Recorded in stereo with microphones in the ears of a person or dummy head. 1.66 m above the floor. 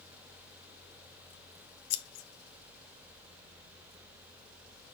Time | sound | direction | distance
1.9 | scissors | 60° left (ahead or behind) | 1.2 m